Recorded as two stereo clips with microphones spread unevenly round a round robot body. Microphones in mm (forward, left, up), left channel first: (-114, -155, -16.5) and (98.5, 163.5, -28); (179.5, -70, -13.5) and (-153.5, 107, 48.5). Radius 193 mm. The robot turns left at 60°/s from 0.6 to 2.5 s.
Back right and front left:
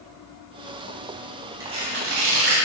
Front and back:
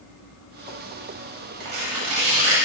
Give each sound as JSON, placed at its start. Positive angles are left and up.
{"t": 1.6, "sound": "tearing paper", "azimuth_deg": 140, "distance_m": 3.5}